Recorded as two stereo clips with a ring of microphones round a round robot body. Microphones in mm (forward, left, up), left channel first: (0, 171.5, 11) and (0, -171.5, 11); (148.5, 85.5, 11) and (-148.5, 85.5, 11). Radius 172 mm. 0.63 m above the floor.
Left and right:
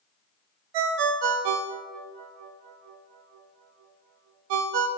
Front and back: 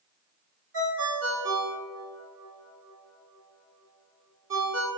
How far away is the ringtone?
About 0.5 m.